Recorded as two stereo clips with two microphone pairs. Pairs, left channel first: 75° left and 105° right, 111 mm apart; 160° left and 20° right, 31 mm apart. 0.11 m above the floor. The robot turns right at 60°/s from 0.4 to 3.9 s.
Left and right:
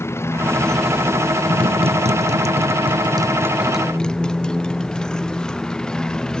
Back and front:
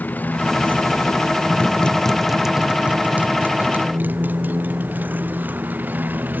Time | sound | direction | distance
0.0 | a motorcycle | 140° left | ?